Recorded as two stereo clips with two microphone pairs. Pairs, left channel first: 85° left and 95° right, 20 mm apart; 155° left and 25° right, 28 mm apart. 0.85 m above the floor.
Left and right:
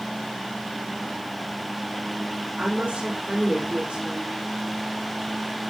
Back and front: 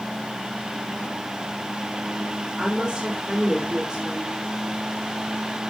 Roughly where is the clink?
No clink in this recording.